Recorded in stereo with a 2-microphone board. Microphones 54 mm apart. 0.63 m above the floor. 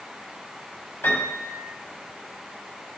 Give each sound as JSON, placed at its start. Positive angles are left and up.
{"t": 1.0, "sound": "a piano", "side_deg": 50, "distance_m": 3.5}